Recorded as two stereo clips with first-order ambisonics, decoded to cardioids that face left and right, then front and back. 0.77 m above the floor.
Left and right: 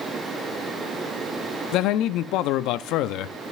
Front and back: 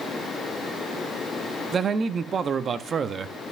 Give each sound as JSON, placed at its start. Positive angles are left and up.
{"t": 1.7, "sound": "a man speaking", "azimuth_deg": 115, "distance_m": 0.7}